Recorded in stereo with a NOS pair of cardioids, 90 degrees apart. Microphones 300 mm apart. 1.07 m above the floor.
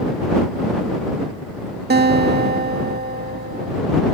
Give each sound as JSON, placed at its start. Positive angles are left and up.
{"t": 1.9, "sound": "a guitar", "azimuth_deg": -30}